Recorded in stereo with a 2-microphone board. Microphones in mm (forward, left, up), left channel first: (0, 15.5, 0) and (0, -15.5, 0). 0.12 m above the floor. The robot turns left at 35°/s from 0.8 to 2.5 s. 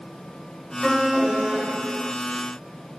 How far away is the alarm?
About 7.5 m.